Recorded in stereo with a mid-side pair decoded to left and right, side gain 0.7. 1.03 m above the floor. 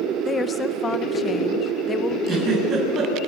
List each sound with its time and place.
0.2 s a woman speaking: 25° left, 1.2 m
2.3 s a giggle: 35° right, 8.5 m